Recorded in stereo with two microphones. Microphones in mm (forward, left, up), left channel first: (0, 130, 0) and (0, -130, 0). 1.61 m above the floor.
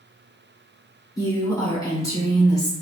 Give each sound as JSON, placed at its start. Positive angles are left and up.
{"t": 1.2, "sound": "a woman speaking", "side_deg": 15, "distance_m": 1.0}